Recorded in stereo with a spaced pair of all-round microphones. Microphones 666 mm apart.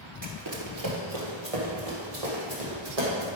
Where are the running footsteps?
30° right (ahead or behind), 1.4 m; by 3.3 s 65° right (ahead or behind), 3.5 m.